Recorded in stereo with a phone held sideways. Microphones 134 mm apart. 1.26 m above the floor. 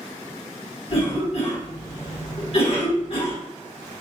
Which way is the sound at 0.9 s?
50° left (ahead or behind).